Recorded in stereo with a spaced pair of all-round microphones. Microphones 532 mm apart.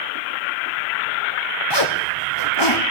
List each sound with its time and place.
1.7 s a zipper: 50° left (ahead or behind), 1.6 m